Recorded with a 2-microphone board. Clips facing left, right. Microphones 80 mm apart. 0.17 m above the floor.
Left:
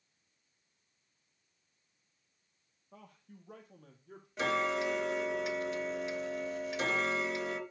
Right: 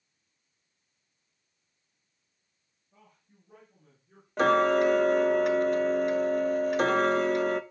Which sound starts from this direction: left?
A man speaking, at 2.9 s.